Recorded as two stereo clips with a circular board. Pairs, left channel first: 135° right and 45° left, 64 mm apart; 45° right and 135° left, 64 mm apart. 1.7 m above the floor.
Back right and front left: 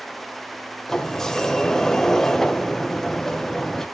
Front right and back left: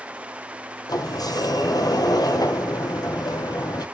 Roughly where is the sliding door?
Ahead right.